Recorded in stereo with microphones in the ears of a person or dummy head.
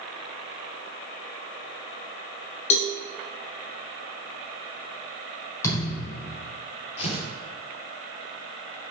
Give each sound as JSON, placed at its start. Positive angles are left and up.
{"t": 2.7, "sound": "a cowbell", "side_deg": 45, "distance_m": 1.1}
{"t": 5.6, "sound": "a thud", "side_deg": 20, "distance_m": 4.5}
{"t": 7.0, "sound": "tearing paper", "side_deg": 35, "distance_m": 4.0}